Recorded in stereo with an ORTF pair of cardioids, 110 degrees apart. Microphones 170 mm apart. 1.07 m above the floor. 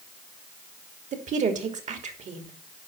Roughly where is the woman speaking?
Ahead right.